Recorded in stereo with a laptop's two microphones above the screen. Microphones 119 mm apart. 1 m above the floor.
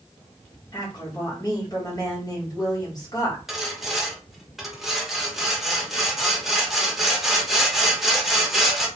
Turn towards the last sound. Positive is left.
turn(degrees=0)  # may be behind; listen again after turning